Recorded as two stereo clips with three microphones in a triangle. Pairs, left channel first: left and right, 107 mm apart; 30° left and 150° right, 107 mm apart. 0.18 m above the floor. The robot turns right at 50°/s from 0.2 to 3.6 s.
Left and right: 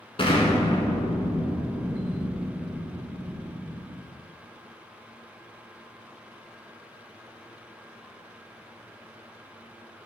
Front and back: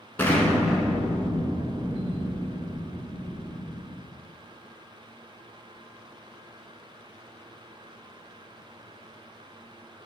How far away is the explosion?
About 1.7 m.